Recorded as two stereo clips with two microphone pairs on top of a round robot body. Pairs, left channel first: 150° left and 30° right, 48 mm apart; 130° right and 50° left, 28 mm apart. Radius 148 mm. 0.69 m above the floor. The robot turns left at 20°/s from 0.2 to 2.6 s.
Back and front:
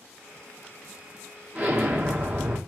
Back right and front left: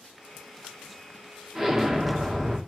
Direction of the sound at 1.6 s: 15° right.